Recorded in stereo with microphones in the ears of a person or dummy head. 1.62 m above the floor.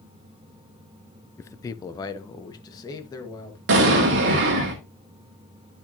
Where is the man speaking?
15° left (ahead or behind), 0.5 m; by 3.6 s 20° left (ahead or behind), 2.5 m.